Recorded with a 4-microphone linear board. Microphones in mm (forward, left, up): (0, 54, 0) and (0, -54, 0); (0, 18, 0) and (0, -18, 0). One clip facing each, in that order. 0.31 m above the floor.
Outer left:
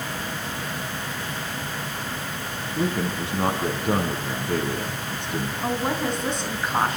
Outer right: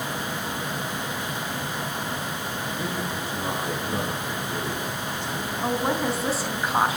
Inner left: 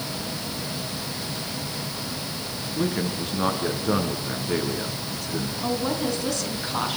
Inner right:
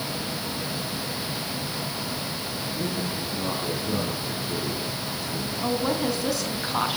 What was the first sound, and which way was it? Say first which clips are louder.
A man speaking: outer left 9 dB, inner left 6 dB; 75° left (ahead or behind).